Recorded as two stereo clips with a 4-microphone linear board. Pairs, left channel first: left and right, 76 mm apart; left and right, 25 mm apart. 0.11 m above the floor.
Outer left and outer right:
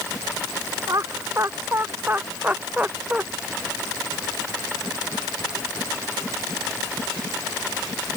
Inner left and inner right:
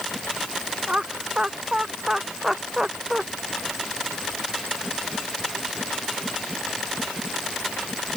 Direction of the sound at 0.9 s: 45° right (ahead or behind).